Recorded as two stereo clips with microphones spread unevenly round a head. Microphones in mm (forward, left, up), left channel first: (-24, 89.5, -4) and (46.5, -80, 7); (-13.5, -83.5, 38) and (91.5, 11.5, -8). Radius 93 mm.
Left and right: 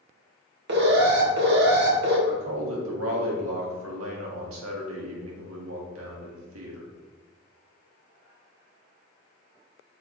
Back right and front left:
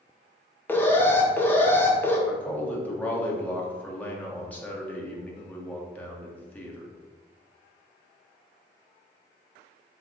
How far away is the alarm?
About 1.9 m.